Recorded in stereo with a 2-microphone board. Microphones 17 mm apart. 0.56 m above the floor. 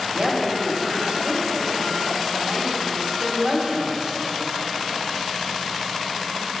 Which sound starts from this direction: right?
A woman speaking, at 0.1 s.